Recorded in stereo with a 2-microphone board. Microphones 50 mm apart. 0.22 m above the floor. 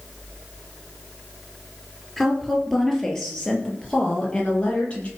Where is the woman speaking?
Centre (ahead or behind), 4.5 m; by 5.1 s 25° left (ahead or behind), 6.5 m.